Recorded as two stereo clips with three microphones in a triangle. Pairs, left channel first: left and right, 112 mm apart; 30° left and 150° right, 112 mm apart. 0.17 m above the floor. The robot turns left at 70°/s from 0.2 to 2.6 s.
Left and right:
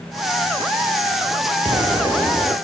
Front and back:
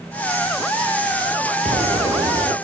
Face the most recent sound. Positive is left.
turn(degrees=165)